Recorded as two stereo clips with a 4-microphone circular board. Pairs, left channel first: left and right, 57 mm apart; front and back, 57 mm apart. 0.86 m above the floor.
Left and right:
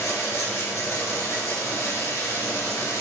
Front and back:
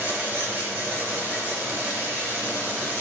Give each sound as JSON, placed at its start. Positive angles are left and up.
{"t": 0.0, "sound": "running water", "azimuth_deg": 120, "distance_m": 3.5}